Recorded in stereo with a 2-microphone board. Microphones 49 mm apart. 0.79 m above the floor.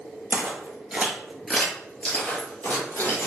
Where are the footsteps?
35° right (ahead or behind), 0.9 m; by 3.3 s 55° left (ahead or behind), 1.3 m.